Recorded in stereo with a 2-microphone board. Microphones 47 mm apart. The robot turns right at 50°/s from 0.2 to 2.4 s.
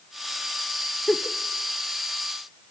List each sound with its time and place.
1.1 s a giggle: 10° left (ahead or behind), 1.0 m; by 1.4 s centre (ahead or behind), 1.0 m